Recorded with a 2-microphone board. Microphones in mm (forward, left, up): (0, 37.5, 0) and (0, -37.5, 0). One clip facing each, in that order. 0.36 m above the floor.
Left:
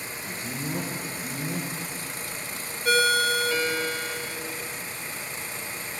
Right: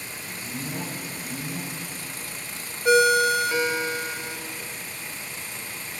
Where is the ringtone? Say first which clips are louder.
Right 5 dB; 20° right (ahead or behind), 0.9 m.